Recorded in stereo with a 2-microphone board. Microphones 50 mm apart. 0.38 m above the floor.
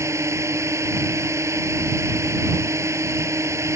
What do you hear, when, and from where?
0.0 s a drone: 75° right (ahead or behind)